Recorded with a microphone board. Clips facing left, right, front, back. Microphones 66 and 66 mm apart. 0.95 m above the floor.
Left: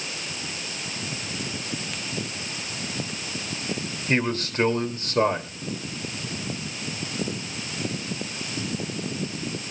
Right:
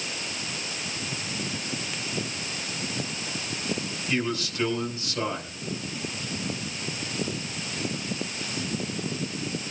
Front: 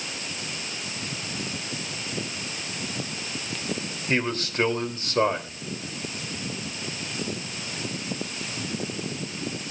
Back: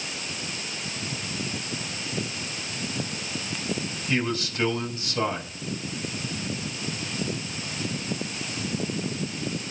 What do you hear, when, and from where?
4.1 s a man speaking: 45° left, 3 m